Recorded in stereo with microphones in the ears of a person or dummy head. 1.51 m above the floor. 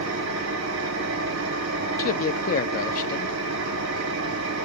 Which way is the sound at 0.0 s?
80° right.